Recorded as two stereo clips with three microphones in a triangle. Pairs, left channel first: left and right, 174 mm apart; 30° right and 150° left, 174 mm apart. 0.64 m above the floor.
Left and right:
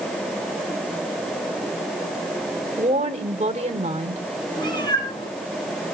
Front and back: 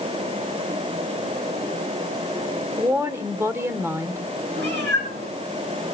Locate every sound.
2.8 s a woman speaking: 135° right, 1.7 m
4.6 s a cat meowing: 155° left, 5 m